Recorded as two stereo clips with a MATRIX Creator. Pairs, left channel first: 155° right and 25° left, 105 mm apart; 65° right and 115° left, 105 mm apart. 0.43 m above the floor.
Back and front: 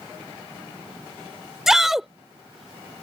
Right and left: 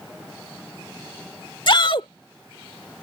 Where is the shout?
65° right.